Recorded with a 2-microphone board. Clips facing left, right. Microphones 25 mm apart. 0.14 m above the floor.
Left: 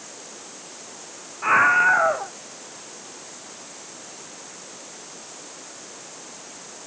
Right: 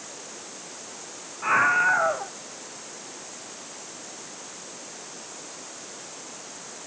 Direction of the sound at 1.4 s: 10° left (ahead or behind).